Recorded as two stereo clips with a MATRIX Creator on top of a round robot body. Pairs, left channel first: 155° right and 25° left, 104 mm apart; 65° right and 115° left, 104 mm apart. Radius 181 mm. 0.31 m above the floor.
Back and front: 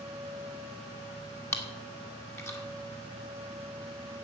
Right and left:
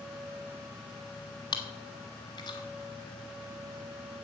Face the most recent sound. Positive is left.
turn(degrees=-100)